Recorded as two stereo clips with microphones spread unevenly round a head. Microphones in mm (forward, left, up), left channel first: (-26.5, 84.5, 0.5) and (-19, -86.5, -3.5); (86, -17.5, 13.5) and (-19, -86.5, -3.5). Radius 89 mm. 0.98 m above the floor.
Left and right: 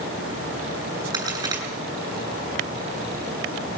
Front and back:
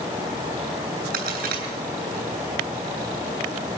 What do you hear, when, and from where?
1.1 s a crack: 160° right, 8.5 m